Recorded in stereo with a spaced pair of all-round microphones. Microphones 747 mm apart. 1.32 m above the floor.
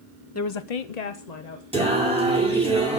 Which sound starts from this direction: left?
A woman speaking, at 0.3 s.